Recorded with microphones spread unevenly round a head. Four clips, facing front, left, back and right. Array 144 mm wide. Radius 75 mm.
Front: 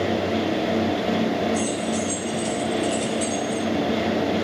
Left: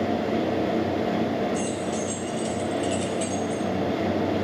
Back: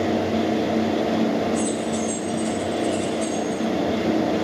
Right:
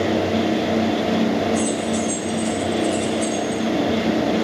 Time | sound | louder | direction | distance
1.5 | keys jangling | right 6 dB, back 1 dB | 60° left | 4.5 m